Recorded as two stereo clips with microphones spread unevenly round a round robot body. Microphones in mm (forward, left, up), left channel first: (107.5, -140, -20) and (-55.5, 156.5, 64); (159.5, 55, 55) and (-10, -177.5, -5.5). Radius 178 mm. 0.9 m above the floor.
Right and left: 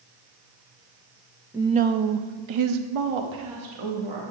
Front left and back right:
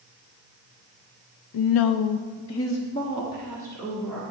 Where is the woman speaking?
30° left, 0.7 m; by 4.2 s 145° left, 1.8 m.